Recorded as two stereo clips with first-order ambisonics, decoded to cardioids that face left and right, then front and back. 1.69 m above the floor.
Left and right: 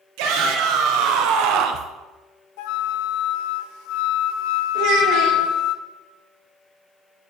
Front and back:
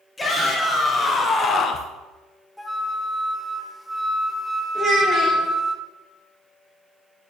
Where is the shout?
75° right, 1.9 m; by 1.9 s 50° right, 0.5 m.